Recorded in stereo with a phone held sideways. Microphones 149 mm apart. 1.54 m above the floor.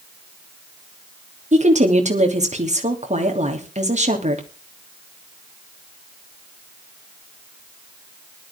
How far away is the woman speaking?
About 3 m.